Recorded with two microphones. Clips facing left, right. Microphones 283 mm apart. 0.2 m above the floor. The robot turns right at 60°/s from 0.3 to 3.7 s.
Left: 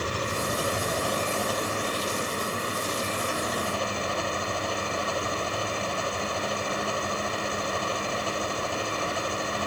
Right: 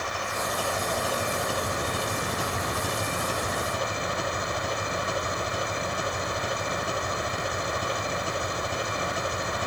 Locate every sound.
0.0 s an engine running: 135° left; by 9.7 s 20° right